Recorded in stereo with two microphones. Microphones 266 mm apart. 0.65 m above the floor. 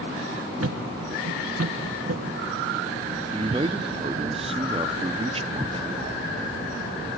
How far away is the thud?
About 1.1 m.